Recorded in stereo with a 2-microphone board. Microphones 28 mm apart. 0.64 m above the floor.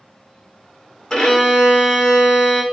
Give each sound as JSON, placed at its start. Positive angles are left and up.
{"t": 1.1, "sound": "a violin", "side_deg": 25, "distance_m": 0.7}